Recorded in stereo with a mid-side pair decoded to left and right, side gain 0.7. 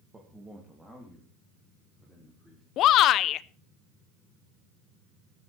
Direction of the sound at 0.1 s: 15° right.